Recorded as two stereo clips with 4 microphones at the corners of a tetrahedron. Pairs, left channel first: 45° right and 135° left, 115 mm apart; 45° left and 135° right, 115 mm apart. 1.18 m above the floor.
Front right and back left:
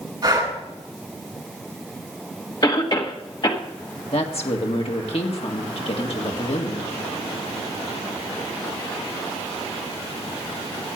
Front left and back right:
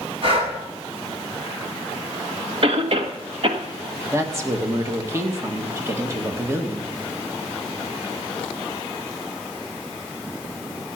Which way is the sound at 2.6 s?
100° right.